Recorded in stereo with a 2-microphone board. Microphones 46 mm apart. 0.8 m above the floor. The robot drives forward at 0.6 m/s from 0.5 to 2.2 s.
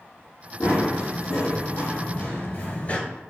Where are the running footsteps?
70° left (ahead or behind), 2 m; by 3.0 s 30° left (ahead or behind), 0.9 m.